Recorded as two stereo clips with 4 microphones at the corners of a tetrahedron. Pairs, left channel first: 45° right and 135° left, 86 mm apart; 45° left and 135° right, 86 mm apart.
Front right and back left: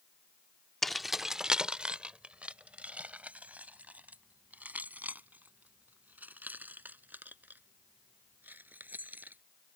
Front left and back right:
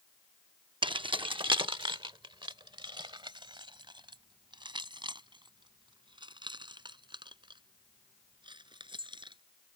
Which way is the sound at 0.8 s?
130° right.